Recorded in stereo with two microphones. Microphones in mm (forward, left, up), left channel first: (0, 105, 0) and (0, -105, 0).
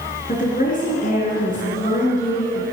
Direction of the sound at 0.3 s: 40° left (ahead or behind).